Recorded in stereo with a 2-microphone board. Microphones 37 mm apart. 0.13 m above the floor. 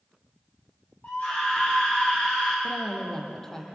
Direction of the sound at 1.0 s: 45° left (ahead or behind).